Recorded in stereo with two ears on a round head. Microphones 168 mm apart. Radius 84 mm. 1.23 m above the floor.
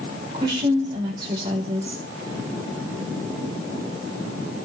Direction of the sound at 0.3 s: 25° right (ahead or behind).